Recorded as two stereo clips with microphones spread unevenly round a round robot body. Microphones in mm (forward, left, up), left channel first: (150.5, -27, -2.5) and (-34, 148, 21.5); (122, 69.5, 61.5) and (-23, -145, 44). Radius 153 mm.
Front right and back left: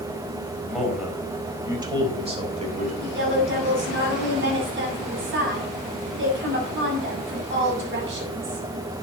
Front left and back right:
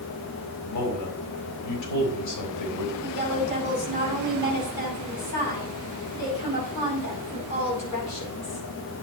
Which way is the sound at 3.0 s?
95° left.